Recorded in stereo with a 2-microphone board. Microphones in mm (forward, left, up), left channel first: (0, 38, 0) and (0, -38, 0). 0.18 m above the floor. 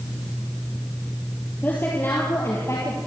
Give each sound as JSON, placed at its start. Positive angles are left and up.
{"t": 1.6, "sound": "a woman speaking", "side_deg": 25, "distance_m": 4.5}